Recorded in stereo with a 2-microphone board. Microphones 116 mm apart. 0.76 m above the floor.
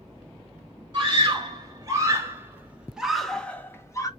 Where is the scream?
40° right (ahead or behind), 1.6 m; by 4.1 s 30° left (ahead or behind), 0.8 m.